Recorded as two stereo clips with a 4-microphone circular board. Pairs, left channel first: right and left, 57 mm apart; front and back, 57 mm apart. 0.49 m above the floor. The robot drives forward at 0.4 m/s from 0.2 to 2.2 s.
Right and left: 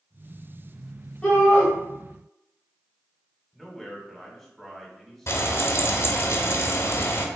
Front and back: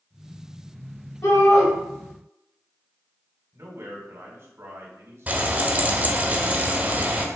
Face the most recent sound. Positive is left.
turn(degrees=-120)